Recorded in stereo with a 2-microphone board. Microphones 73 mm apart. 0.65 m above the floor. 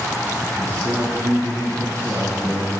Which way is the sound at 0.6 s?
55° right (ahead or behind).